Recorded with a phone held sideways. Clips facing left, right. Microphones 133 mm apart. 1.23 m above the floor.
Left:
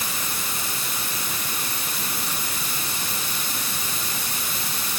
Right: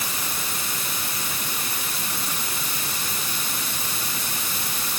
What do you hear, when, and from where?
Only background noise.